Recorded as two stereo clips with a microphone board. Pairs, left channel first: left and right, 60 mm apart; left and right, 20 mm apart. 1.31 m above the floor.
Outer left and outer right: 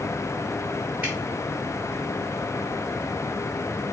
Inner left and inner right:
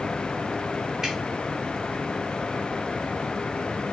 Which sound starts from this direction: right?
Dripping, at 1.0 s.